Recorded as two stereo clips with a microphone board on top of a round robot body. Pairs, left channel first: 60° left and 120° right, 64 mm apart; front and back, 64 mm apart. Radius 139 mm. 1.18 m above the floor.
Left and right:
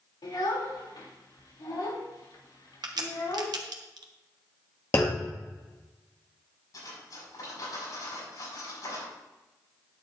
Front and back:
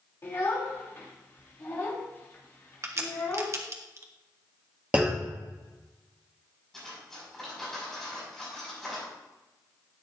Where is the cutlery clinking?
85° left, 5.5 m.